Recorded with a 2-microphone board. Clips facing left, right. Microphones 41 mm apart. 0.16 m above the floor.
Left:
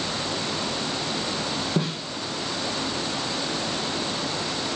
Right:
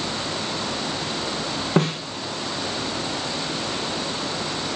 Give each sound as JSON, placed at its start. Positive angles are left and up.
{"t": 1.8, "sound": "a snare drum", "side_deg": -65, "distance_m": 1.9}